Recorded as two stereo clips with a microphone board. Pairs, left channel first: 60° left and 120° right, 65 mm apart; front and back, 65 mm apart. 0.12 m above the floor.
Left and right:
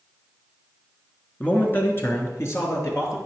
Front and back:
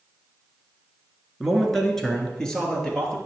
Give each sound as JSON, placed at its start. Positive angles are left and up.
{"t": 1.4, "sound": "a man speaking", "azimuth_deg": 85, "distance_m": 1.3}